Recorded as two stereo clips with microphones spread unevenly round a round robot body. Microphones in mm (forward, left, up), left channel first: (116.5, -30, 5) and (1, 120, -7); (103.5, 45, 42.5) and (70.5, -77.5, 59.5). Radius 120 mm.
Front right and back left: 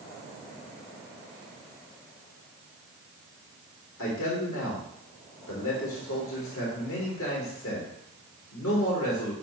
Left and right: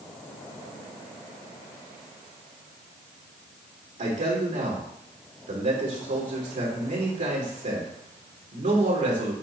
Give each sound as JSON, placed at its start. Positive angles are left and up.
{"t": 4.0, "sound": "a man speaking", "azimuth_deg": -85, "distance_m": 3.0}